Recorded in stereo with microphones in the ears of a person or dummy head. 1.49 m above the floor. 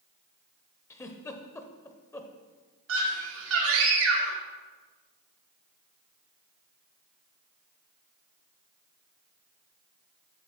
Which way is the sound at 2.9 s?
75° right (ahead or behind).